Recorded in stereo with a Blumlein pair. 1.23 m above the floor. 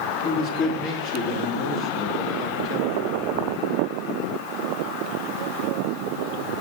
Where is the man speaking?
40° left, 3 m.